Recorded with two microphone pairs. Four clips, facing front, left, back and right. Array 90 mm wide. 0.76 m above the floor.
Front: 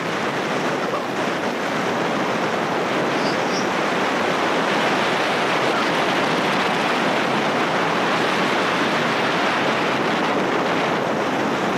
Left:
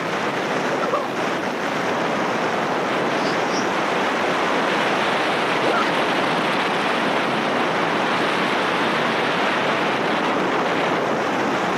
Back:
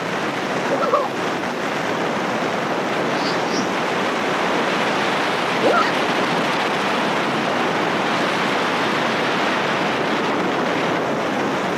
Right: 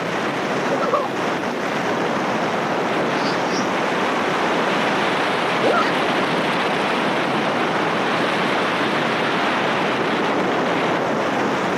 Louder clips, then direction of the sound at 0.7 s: Right 2 dB, back 4 dB; 160° right.